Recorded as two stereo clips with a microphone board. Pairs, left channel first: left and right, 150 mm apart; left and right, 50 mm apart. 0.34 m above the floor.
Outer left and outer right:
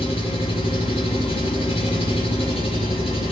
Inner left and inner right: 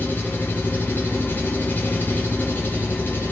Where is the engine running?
40° left (ahead or behind), 7.5 m.